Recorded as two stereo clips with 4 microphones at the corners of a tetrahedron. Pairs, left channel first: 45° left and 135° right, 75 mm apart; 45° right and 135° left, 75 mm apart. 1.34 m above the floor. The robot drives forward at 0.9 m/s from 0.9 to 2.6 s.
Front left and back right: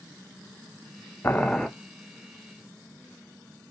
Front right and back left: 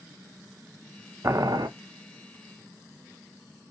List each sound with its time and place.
1.2 s boiling: 95° left, 0.5 m; by 1.7 s 135° left, 0.7 m